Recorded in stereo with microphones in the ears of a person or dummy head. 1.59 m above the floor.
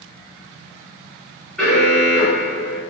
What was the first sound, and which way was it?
An alarm, centre (ahead or behind).